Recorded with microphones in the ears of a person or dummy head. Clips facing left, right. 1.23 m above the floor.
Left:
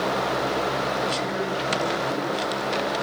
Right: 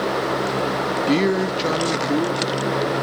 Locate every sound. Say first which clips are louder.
1.1 s a man speaking: right 8 dB; 70° right (ahead or behind), 1.2 m; by 2.9 s 40° right (ahead or behind), 3 m